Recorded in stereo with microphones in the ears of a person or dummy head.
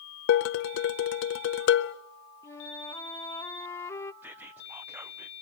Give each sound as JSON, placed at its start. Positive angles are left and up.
{"t": 0.3, "sound": "dishes clattering", "side_deg": 55, "distance_m": 0.7}
{"t": 2.4, "sound": "a flute", "side_deg": 15, "distance_m": 0.9}
{"t": 4.2, "sound": "whispering", "side_deg": -10, "distance_m": 0.6}